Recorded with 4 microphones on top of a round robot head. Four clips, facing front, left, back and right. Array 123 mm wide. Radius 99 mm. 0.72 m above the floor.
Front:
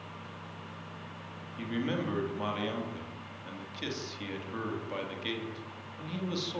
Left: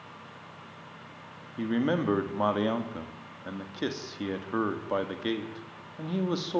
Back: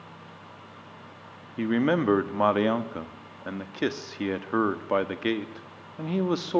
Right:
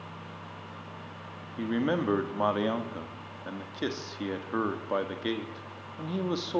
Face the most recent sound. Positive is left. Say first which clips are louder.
# left 1 dB, back 10 dB
turn(degrees=180)